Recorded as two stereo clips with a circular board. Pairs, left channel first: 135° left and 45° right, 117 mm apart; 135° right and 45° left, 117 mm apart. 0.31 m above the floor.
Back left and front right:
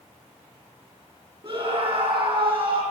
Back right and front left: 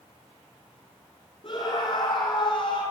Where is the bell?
I don't hear a bell.